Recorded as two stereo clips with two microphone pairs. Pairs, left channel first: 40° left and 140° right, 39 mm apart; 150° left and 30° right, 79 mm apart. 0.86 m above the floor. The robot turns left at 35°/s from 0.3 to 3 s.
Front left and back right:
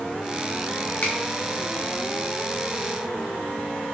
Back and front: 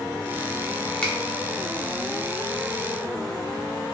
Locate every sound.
1.0 s a finger snap: 75° left, 0.8 m; by 1.1 s 70° left, 0.8 m